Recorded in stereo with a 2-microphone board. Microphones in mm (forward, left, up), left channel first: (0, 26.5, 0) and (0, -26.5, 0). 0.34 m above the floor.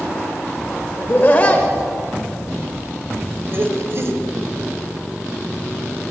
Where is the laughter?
40° left (ahead or behind), 1.2 m; by 4.2 s 55° right (ahead or behind), 1.7 m.